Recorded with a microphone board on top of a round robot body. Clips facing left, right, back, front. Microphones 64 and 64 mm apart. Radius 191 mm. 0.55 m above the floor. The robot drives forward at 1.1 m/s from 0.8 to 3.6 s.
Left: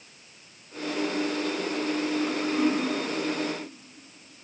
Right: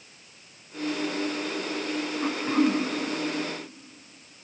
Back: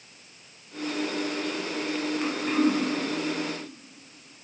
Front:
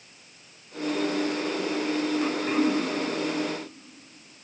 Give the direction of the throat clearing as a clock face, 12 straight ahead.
3 o'clock.